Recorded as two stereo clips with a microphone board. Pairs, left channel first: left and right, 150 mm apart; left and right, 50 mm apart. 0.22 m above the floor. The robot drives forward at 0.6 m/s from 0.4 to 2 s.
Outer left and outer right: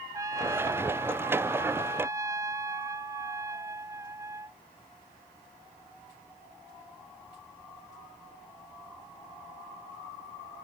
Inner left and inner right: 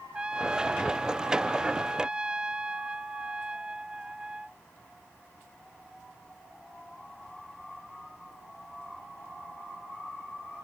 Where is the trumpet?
20° right (ahead or behind).